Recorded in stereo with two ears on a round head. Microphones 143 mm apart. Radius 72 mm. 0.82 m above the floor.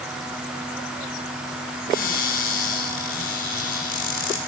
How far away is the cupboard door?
About 6 m.